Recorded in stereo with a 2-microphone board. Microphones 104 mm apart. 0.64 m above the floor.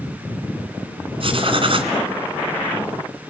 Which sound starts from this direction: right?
Writing, at 1.2 s.